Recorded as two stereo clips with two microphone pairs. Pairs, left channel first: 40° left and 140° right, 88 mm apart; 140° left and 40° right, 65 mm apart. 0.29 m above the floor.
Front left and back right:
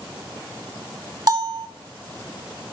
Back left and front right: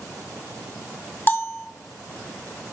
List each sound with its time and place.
1.3 s a bell: 170° right, 0.9 m